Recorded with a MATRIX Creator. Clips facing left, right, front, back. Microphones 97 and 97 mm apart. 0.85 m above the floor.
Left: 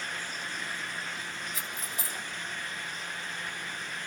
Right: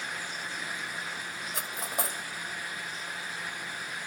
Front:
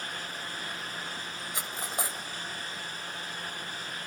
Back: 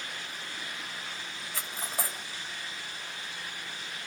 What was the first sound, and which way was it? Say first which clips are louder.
Cutlery clinking: right 4 dB, front 1 dB; 70° right.